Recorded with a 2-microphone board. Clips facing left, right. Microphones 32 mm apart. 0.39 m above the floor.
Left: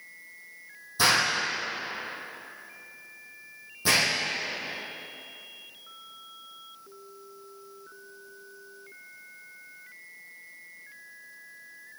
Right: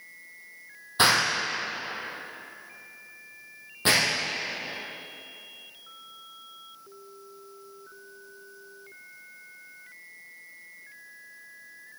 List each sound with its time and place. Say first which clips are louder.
1.0 s an explosion: right 1 dB; 60° right (ahead or behind), 4 m